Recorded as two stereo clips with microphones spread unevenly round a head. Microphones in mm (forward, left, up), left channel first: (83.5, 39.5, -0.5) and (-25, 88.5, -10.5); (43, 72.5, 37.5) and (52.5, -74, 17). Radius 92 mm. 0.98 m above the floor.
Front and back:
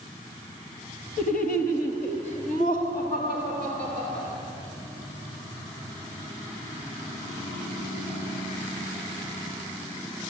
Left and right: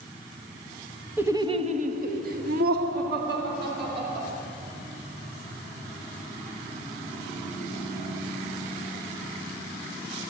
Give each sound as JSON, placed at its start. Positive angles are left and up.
{"t": 1.2, "sound": "laughter", "azimuth_deg": -10, "distance_m": 1.3}